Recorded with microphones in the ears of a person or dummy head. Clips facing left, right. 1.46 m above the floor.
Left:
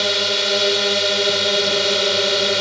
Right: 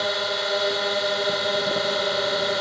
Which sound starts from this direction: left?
A drone, at 0.0 s.